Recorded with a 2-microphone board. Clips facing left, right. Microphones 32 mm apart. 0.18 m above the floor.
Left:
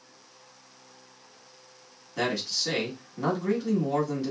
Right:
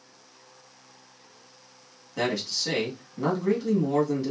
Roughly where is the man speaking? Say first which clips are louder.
Right 1 dB; centre.